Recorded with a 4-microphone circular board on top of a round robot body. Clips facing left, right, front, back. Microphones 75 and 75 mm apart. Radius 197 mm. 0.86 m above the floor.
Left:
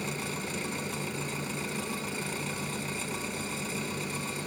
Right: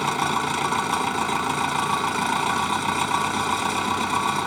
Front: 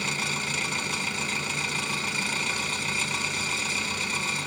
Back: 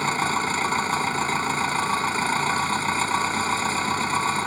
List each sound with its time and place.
0.0 s an engine running: 120° right